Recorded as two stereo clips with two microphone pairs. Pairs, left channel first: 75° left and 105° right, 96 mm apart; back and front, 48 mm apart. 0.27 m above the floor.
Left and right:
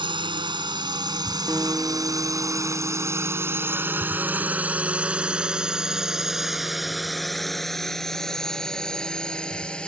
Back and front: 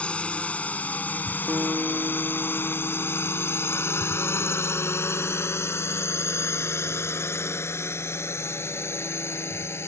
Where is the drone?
120° right; by 9.9 s 155° left.